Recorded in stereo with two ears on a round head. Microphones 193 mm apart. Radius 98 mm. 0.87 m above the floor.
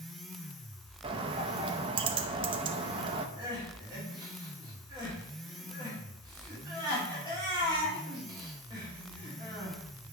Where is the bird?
25° right (ahead or behind), 0.5 m.